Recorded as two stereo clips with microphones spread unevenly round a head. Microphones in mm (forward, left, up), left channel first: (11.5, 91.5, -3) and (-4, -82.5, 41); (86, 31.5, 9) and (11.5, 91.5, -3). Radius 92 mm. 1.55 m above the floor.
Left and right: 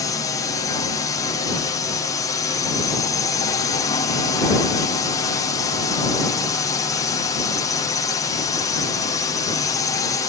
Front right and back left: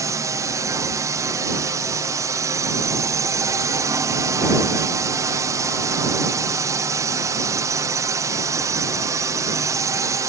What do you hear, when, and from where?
0.0 s a drone: 125° left